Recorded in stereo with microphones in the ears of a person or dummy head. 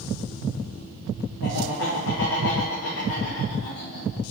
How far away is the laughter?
About 1.2 m.